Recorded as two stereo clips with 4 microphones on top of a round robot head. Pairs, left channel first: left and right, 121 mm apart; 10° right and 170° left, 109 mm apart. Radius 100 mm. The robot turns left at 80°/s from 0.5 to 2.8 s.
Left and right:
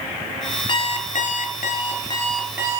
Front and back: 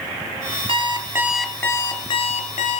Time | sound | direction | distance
0.7 | an alarm clock | 140° left | 2 m